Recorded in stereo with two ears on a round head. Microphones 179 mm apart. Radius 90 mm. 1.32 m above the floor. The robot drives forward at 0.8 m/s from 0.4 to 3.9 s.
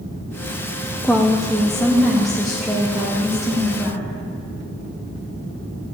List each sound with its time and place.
1.0 s a woman speaking: 5° left (ahead or behind), 0.6 m; by 4.0 s centre (ahead or behind), 3 m